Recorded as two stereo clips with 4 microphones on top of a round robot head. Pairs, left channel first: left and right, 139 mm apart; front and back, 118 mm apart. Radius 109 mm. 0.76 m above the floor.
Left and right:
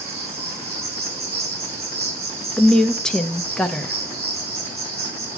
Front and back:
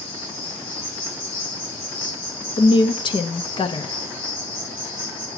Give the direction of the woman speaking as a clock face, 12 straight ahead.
12 o'clock.